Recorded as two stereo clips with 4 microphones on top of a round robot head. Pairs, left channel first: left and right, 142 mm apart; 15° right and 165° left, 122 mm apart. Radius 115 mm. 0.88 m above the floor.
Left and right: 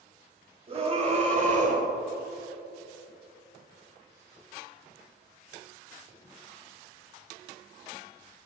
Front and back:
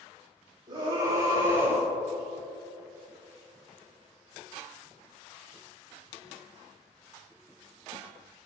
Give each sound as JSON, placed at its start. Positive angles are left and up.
{"t": 0.7, "sound": "a scream", "azimuth_deg": -135, "distance_m": 5.0}